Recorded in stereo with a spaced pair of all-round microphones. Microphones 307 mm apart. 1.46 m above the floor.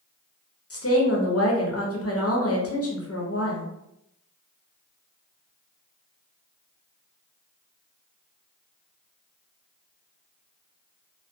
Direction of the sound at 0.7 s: 50° left (ahead or behind).